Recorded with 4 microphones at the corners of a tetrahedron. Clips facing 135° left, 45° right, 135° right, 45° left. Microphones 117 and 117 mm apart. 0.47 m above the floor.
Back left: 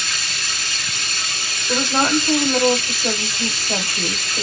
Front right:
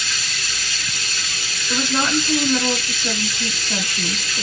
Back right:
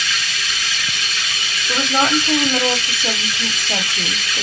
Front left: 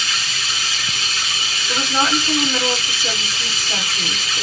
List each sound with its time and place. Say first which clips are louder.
0.0 s running water: back left 1 dB, back right 1 dB; 105° left, 2.5 m
1.7 s a woman speaking: back left 2 dB, back right 2 dB; 165° left, 1.2 m